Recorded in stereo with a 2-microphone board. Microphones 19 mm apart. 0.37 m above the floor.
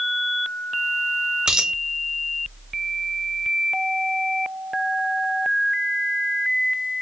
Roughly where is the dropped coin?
Right.